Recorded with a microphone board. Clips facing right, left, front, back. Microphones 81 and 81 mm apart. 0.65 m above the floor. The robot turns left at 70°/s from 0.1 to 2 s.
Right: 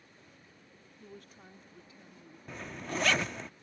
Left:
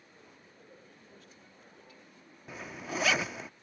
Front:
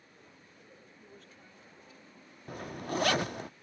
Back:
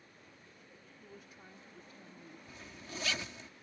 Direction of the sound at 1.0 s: 85° right.